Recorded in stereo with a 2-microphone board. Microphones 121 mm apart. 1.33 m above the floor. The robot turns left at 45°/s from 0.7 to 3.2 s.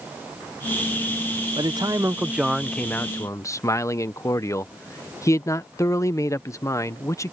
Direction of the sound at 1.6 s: 135° right.